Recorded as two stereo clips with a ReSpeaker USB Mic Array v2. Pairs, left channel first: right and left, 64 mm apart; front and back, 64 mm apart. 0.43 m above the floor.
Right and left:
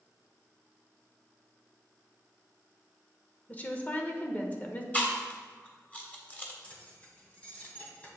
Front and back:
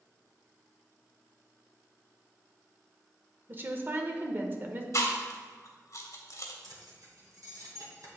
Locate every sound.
3.5 s a woman speaking: 140° right, 1.0 m
4.9 s chewing: 30° right, 1.3 m
6.6 s keys jangling: 160° right, 1.9 m